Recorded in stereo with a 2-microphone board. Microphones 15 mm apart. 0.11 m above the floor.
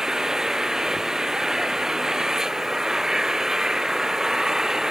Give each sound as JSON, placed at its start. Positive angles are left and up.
{"t": 0.0, "sound": "an engine running", "side_deg": -45}